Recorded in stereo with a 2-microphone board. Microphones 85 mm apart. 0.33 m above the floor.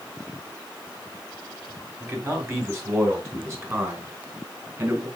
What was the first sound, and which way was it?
A man speaking, 30° right (ahead or behind).